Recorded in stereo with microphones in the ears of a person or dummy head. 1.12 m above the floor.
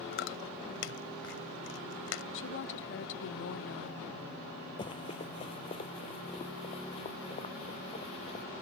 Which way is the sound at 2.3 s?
55° left (ahead or behind).